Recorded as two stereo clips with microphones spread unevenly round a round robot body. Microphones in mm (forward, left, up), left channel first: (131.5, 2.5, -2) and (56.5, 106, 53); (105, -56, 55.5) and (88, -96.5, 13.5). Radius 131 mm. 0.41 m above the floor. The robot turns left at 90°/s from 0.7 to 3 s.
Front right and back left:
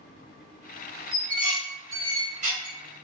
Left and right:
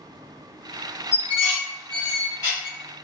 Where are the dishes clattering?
155° right, 1.3 m; by 2.8 s 60° left, 1.3 m.